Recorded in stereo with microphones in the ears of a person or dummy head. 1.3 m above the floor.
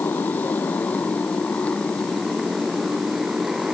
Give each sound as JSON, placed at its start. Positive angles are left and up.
{"t": 0.0, "sound": "a motorcycle", "side_deg": 10}